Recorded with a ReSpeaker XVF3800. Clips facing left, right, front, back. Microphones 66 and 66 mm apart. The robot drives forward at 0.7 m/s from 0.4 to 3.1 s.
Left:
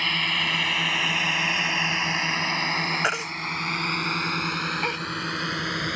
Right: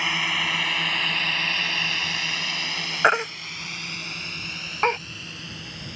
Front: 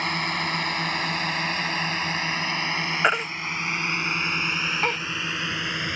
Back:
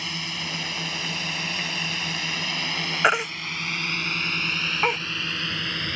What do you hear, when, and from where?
0.0 s a drone: 15° right; by 6.0 s 75° left
3.0 s a baby crying: 100° right; by 5.0 s 105° right